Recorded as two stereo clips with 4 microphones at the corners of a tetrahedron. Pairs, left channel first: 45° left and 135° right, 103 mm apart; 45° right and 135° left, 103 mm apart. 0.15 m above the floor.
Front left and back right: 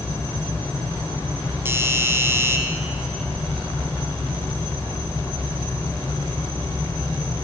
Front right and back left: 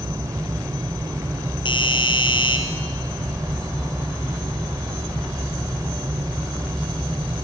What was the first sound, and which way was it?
A doorbell, 70° right.